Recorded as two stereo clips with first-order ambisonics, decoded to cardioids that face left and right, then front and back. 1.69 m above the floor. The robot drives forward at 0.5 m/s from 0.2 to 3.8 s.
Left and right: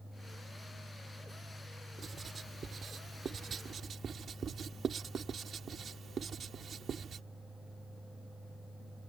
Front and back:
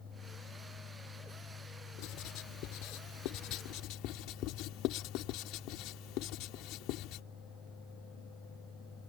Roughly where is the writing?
Ahead.